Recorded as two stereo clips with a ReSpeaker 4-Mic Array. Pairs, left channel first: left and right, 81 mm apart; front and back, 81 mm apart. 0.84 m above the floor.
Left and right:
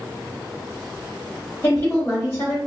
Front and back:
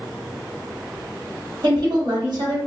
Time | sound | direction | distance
1.6 | a woman speaking | 155° left | 1.2 m